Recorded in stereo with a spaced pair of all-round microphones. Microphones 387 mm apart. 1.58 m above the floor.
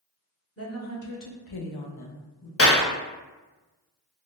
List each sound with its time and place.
0.6 s a woman speaking: 35° left (ahead or behind), 0.9 m; by 2.5 s 50° left (ahead or behind), 0.7 m
2.6 s a clap: 35° left (ahead or behind), 0.5 m